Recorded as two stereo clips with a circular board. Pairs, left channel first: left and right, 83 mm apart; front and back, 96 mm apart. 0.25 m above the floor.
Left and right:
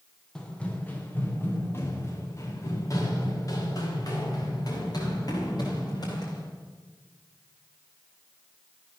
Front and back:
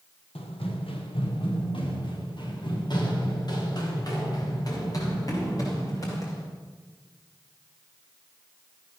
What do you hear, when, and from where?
0.3 s running footsteps: 10° left, 3.5 m; by 6.4 s 55° left, 10 m